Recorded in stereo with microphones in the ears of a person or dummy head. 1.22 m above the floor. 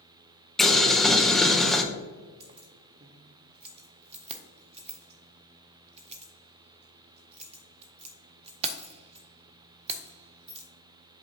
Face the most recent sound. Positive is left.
turn(degrees=-30)  # may be behind; listen again after turning